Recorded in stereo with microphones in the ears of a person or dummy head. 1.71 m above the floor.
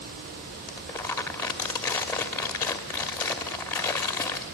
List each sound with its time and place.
0.7 s crumpling: 10° left (ahead or behind), 1.4 m